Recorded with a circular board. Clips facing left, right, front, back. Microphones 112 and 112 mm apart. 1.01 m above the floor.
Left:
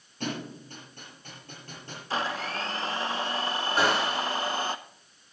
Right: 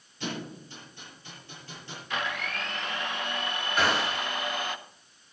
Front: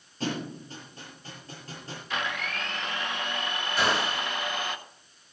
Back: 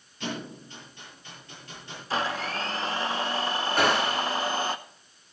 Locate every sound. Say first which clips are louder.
0.2 s a thud: left 2 dB, front 3 dB; 50° left, 7 m
2.1 s a blender: left 3 dB, back 4 dB; 135° left, 0.6 m
3.8 s a gunshot: left 1 dB, back 3 dB; 145° left, 4.5 m